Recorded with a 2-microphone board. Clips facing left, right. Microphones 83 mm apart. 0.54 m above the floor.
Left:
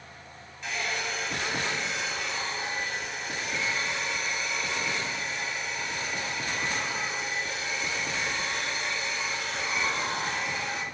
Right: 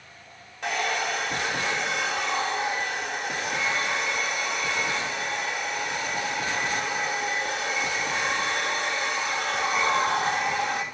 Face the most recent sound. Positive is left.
turn(degrees=-70)  # may be behind; listen again after turning